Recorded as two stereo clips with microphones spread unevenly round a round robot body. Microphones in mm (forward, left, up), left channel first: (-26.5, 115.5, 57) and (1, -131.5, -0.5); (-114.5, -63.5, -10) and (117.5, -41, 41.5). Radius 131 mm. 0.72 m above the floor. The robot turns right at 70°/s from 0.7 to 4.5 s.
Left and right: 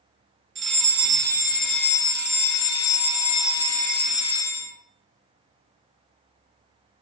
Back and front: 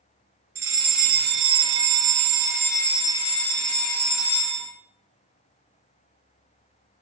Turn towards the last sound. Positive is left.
turn(degrees=-175)